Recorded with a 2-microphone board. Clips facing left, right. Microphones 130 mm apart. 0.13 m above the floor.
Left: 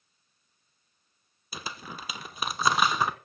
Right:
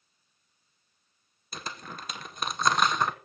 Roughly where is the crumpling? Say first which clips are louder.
Even; centre.